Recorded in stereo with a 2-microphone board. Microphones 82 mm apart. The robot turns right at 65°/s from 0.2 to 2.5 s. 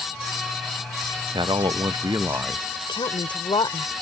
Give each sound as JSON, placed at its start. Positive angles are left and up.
{"t": 1.3, "sound": "a man speaking", "azimuth_deg": -110}
{"t": 2.9, "sound": "a woman speaking", "side_deg": 75}